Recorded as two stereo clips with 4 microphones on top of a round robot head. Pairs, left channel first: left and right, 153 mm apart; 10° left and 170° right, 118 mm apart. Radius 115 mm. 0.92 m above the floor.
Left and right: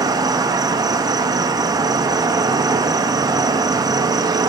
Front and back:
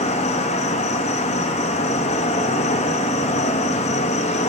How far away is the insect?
About 0.8 m.